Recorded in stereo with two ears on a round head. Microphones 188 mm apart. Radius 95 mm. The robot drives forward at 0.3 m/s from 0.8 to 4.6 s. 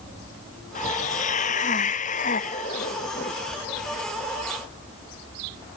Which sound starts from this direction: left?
A hiss, at 0.8 s.